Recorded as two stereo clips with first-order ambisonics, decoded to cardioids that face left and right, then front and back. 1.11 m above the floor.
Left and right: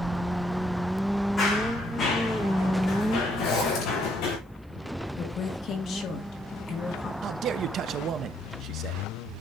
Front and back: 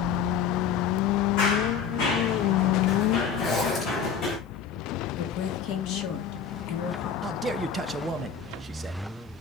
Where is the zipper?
60° left, 6 m.